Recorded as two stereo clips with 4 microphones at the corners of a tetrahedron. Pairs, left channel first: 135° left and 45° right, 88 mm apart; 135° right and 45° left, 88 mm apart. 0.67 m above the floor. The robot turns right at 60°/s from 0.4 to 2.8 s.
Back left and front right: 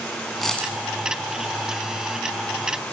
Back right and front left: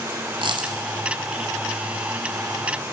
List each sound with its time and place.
0.4 s a dropped coin: 50° left, 1.2 m; by 0.8 s 70° left, 1.2 m